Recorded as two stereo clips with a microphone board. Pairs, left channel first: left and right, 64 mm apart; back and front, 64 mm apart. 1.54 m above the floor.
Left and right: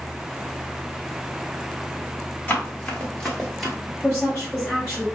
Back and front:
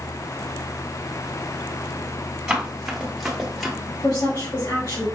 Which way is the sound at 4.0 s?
165° left.